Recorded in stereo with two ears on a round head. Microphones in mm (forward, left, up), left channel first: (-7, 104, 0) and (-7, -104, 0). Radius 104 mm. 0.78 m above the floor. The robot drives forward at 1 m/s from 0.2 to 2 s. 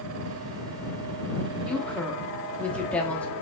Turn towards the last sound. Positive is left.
turn(degrees=5)  # may be behind; listen again after turning